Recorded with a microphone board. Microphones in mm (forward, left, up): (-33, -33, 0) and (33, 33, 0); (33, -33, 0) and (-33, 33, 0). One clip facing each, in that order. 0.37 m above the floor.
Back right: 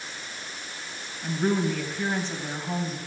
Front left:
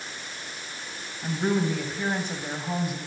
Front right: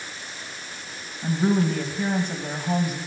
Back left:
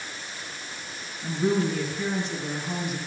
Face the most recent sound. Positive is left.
turn(degrees=-30)